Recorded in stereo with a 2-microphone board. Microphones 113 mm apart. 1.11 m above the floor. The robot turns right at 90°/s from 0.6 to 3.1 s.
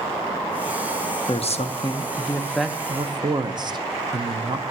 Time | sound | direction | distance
1.3 | a man speaking | 60° left | 0.8 m